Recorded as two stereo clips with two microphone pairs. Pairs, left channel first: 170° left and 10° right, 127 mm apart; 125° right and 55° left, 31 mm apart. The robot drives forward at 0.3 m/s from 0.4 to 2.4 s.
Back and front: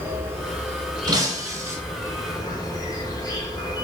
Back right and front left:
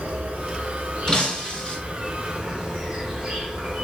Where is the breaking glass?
65° right, 0.8 m; by 1.8 s 80° right, 0.8 m.